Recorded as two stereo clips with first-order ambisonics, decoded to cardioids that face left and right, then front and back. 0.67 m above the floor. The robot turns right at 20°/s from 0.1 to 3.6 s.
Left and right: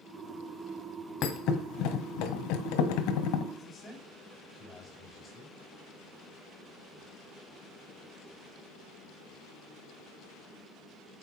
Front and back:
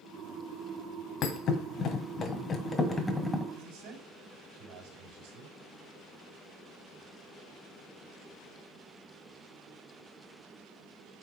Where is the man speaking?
165° left, 5.5 m.